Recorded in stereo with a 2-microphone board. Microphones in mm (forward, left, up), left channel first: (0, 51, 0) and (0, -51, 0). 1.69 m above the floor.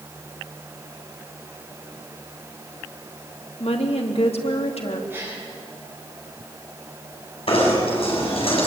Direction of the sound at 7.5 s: 65° left (ahead or behind).